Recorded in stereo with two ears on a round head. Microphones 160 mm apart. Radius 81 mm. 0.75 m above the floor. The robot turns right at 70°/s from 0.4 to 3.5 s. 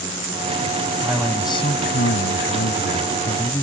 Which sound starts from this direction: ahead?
A man speaking, at 1.0 s.